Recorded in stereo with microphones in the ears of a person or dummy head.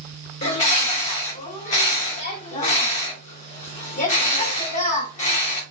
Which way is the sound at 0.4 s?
35° left (ahead or behind).